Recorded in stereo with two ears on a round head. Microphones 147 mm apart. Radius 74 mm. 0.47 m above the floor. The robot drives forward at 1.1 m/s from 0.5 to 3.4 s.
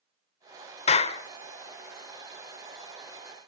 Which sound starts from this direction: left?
A clap, at 0.9 s.